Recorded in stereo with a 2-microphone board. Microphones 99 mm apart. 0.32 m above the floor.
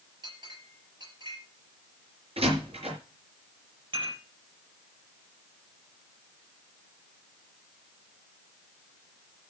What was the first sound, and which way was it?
A clink, 55° right (ahead or behind).